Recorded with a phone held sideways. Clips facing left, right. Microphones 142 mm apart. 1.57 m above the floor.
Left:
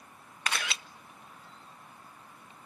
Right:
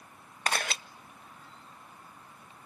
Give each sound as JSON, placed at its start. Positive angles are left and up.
{"t": 0.5, "sound": "a camera shutter", "side_deg": -45, "distance_m": 0.6}